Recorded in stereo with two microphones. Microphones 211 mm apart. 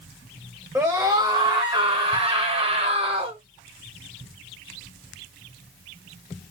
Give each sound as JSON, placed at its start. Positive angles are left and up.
{"t": 0.8, "sound": "a scream", "side_deg": -15, "distance_m": 1.1}